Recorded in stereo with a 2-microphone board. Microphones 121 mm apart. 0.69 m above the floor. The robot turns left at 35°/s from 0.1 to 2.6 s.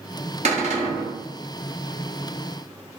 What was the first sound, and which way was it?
A cupboard door, 60° right (ahead or behind).